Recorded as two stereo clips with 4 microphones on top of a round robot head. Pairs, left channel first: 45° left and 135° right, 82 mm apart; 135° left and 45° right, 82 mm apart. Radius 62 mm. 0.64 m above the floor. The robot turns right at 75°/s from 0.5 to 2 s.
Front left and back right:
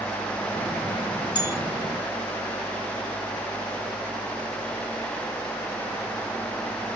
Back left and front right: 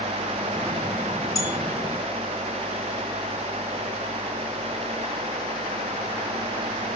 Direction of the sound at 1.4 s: 80° left.